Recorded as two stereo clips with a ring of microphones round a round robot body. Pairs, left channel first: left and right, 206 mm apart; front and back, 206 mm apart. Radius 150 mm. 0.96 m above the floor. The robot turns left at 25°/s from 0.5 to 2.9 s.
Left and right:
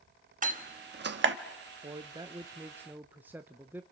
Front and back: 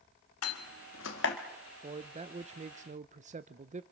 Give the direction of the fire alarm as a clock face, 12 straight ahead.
No fire alarm in this recording.